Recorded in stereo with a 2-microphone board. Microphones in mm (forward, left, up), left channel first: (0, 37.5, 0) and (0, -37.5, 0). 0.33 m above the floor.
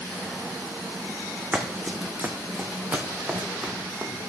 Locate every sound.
1.5 s running footsteps: 15° right (ahead or behind), 1.5 m; by 4.1 s 25° right (ahead or behind), 3 m